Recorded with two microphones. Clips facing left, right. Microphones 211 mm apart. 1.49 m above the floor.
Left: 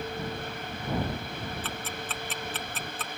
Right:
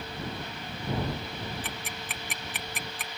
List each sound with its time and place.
1.6 s ticking: 15° right (ahead or behind)